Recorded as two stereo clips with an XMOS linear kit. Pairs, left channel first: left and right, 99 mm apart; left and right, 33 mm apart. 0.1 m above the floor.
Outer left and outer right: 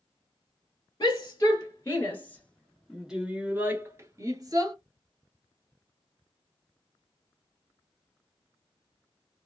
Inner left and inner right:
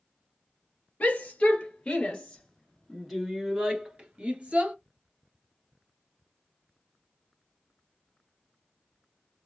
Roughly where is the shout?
Left.